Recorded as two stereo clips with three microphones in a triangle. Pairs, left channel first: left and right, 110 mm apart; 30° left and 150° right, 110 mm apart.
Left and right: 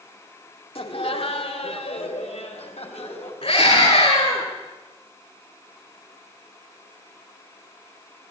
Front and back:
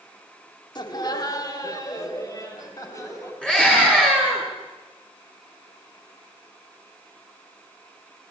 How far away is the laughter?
About 1.8 m.